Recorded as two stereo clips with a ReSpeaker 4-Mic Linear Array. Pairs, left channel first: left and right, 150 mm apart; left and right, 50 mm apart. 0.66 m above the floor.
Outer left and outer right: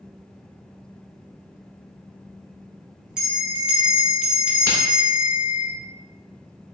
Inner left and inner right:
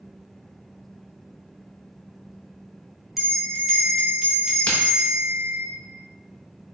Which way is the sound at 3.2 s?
5° right (ahead or behind).